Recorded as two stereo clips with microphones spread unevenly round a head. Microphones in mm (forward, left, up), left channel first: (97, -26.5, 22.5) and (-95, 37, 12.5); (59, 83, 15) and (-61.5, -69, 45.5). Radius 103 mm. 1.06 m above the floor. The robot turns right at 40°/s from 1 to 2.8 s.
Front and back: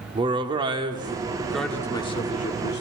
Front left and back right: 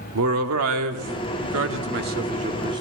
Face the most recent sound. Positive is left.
turn(degrees=-55)